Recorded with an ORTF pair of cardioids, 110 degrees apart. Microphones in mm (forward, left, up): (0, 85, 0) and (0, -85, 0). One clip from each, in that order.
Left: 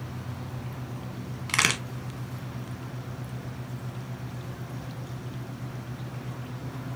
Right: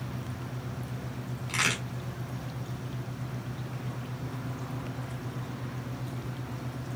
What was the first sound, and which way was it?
A crack, 55° left.